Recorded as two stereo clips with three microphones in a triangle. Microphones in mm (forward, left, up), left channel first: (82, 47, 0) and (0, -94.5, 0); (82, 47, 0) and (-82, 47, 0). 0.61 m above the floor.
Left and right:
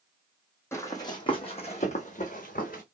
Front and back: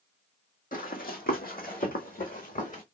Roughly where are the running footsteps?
Ahead.